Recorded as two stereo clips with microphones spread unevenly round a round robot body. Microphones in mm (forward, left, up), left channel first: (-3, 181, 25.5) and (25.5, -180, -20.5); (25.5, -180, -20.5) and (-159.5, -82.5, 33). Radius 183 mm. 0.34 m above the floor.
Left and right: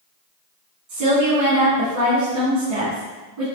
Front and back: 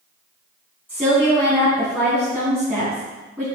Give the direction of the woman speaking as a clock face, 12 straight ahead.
4 o'clock.